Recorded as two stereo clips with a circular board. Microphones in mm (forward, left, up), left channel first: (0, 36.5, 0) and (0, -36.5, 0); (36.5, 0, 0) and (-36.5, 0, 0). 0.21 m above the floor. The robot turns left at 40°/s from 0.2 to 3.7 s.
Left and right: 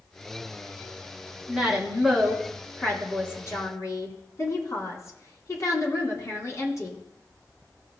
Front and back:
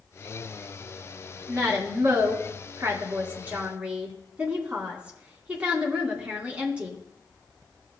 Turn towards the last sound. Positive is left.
turn(degrees=110)